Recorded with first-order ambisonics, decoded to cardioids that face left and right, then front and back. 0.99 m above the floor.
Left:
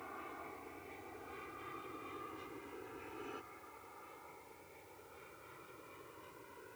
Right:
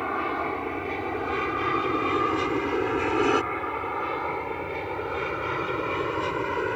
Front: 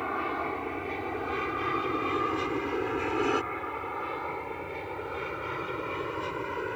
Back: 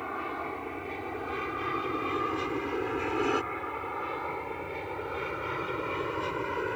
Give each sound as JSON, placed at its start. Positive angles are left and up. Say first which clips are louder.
{"t": 0.0, "sound": "an aircraft", "louder": "right 22 dB, front 4 dB", "azimuth_deg": -70}